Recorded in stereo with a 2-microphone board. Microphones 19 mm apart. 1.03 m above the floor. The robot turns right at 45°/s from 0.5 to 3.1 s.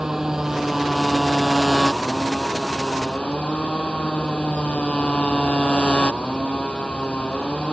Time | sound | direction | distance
0.0 | a motorcycle | 30° right | ?